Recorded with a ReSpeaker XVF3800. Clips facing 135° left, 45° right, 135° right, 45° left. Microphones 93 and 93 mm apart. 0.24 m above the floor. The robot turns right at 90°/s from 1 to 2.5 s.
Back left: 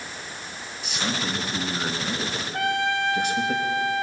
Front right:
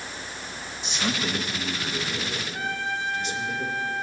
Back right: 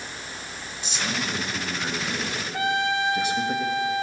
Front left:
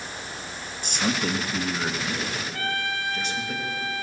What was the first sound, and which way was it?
A man speaking, 15° left.